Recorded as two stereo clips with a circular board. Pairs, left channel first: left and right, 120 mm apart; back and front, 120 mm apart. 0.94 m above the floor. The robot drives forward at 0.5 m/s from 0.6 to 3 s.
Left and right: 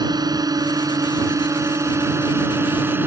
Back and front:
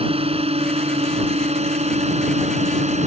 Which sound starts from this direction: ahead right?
A drone, at 0.0 s.